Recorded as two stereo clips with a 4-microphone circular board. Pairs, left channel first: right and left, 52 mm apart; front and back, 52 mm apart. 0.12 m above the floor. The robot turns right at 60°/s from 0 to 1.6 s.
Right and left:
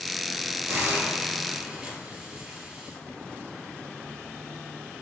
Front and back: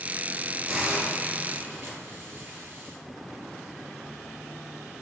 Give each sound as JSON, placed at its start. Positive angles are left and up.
{"t": 0.7, "sound": "a hiss", "azimuth_deg": 110, "distance_m": 2.5}